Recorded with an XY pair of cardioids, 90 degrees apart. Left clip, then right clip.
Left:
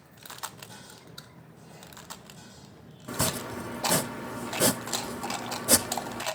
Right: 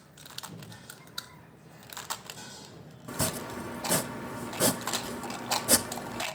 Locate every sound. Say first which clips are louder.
3.1 s chopping: left 3 dB; 15° left, 0.9 m